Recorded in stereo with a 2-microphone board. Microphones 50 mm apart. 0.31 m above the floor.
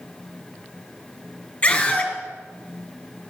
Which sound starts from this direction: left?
A scream, at 1.6 s.